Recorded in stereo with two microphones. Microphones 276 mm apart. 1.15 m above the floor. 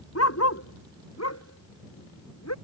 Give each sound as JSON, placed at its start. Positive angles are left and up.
{"t": 0.1, "sound": "a dog barking", "side_deg": 60}